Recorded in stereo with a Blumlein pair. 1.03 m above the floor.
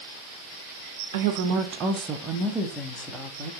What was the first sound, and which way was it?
A woman speaking, 55° right.